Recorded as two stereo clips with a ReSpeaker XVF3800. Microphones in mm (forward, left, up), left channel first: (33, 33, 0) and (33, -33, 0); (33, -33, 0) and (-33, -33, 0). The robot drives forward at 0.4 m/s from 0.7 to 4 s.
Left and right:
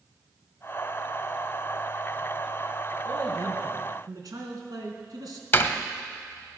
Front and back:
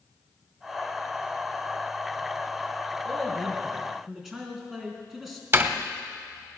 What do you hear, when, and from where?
3.0 s a man speaking: 90° right, 3 m; by 5.4 s 95° right, 3 m
5.5 s a door slam: 140° left, 0.9 m